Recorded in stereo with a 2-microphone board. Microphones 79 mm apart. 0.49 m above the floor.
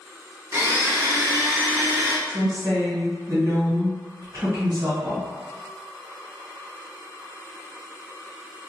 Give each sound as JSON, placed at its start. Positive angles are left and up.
{"t": 0.5, "sound": "a blender", "side_deg": -35, "distance_m": 0.8}
{"t": 2.3, "sound": "a woman speaking", "side_deg": -55, "distance_m": 1.7}